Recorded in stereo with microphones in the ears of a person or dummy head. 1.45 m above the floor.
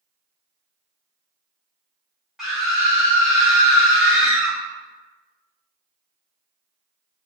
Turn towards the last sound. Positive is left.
turn(degrees=0)  # may be behind; listen again after turning